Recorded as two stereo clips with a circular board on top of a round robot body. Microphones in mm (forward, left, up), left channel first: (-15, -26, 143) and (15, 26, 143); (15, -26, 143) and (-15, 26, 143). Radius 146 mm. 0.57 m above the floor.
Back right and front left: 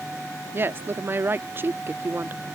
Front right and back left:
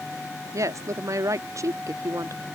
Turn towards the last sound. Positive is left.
turn(degrees=105)